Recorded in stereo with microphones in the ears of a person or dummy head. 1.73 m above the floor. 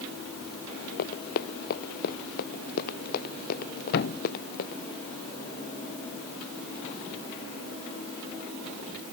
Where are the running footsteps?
55° left (ahead or behind).